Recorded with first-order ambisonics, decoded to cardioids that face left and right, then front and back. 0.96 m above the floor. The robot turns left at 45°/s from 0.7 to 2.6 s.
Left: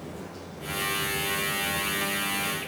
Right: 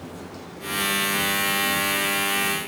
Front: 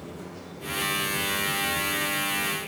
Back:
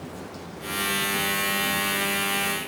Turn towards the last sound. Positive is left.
turn(degrees=125)